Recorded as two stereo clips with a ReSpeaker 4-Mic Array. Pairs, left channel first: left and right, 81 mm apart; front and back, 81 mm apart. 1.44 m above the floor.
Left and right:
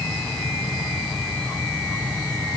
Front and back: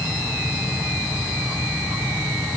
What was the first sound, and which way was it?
Only background noise.